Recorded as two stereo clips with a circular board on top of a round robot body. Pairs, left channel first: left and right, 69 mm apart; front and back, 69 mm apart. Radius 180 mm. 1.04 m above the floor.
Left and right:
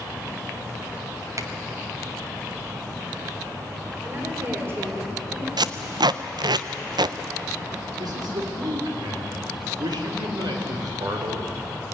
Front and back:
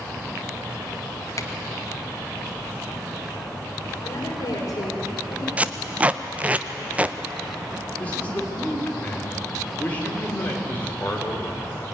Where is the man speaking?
70° right, 3.5 m.